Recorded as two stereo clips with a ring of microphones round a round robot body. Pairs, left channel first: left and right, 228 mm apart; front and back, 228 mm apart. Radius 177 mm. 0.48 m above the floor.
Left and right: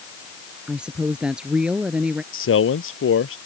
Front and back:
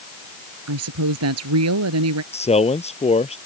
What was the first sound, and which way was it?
A woman speaking, 175° right.